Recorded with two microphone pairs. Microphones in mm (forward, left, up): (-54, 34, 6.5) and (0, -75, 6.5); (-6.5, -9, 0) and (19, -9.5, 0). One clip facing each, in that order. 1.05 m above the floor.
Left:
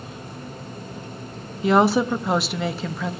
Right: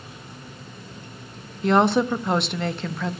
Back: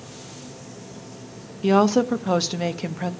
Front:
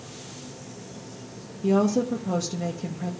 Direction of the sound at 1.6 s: 155° right.